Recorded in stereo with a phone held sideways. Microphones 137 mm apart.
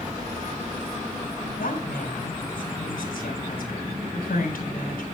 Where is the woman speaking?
85° left, 3.5 m.